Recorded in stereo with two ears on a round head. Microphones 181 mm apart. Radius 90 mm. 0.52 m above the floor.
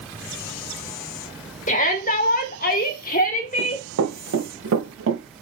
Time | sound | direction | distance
1.7 | a shout | 40° left (ahead or behind) | 1.9 m
3.6 | running footsteps | 85° right | 3.5 m